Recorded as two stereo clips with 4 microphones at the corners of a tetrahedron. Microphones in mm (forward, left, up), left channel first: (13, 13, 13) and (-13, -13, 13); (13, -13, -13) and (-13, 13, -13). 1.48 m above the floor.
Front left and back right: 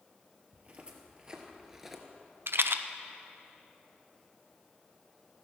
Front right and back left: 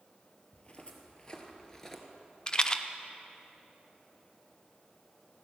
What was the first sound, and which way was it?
Footsteps, 90° right.